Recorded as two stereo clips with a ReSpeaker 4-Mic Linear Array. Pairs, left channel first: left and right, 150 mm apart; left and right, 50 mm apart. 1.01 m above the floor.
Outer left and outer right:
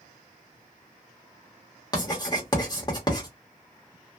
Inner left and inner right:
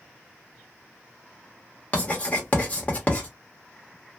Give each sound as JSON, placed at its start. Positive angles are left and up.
{"t": 1.9, "sound": "writing", "side_deg": 25, "distance_m": 1.1}